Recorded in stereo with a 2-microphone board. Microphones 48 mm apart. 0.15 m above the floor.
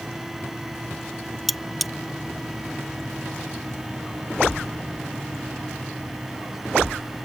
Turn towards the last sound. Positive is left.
turn(degrees=0)  # may be behind; listen again after turning